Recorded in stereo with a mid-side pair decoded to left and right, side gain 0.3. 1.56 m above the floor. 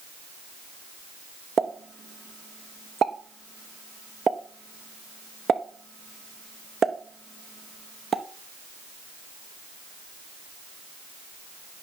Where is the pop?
65° right, 0.9 m.